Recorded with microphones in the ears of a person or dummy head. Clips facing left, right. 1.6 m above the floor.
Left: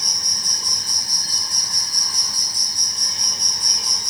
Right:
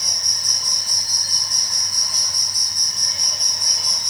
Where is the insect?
35° left (ahead or behind), 1.0 m.